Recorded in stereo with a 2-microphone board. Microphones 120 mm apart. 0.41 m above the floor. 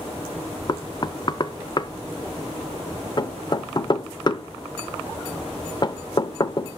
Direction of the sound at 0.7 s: 40° left (ahead or behind).